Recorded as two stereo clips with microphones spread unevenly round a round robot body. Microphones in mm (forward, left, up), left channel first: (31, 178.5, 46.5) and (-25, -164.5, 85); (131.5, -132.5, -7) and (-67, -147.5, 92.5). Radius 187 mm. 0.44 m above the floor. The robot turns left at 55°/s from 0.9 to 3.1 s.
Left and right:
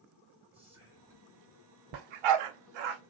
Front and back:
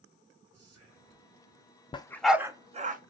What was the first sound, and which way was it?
Whispering, 170° left.